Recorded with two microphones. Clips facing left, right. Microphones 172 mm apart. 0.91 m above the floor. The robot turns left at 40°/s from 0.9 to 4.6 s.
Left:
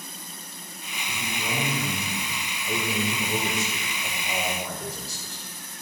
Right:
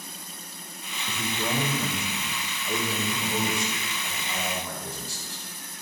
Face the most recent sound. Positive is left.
turn(degrees=85)